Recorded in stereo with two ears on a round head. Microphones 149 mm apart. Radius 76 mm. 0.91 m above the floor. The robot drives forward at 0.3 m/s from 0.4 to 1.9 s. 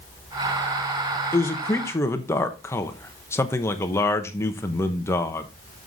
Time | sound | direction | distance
1.3 | a man speaking | 15° left (ahead or behind) | 1.0 m